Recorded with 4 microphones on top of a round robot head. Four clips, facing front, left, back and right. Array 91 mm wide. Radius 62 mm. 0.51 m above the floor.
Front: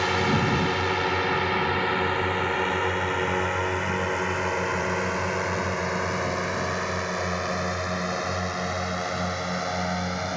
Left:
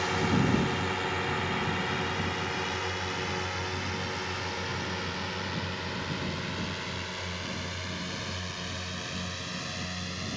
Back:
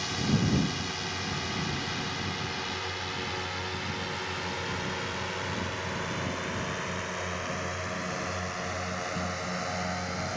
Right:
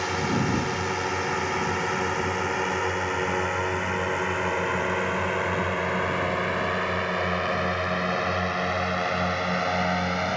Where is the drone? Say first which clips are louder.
Right 2 dB, front 7 dB; 10° right; by 10.4 s 75° right.